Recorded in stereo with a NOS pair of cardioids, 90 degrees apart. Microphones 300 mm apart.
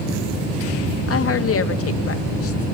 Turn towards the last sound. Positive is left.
turn(degrees=50)